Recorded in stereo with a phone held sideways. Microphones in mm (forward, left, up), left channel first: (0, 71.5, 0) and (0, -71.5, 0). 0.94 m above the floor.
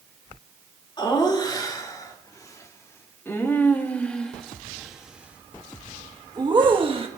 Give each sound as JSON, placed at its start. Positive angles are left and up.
{"t": 1.0, "sound": "laughter", "side_deg": 30, "distance_m": 3.0}